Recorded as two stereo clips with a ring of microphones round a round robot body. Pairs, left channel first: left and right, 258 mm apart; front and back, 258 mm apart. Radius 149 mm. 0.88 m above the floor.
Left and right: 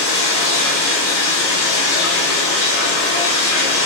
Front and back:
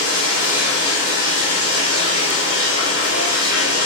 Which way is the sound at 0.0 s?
130° left.